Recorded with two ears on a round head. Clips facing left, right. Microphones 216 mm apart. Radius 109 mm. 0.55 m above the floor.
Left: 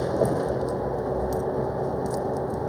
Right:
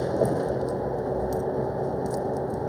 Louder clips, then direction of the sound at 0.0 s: Even; centre (ahead or behind).